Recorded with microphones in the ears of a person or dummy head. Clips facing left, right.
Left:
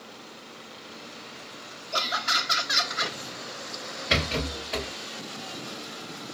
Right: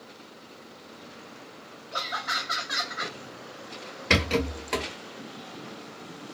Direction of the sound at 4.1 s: 70° right (ahead or behind).